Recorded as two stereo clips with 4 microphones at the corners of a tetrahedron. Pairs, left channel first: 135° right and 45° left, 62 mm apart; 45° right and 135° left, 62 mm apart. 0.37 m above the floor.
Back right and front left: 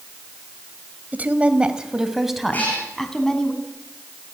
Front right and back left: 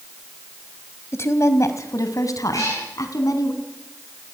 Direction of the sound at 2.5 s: 70° right.